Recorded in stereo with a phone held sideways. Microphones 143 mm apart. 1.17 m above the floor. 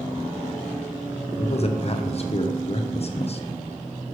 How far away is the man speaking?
About 0.8 m.